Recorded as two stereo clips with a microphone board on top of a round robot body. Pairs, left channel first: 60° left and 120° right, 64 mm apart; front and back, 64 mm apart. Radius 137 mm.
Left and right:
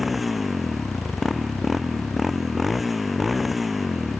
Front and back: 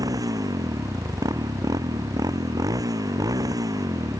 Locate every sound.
0.0 s a motorcycle: 155° left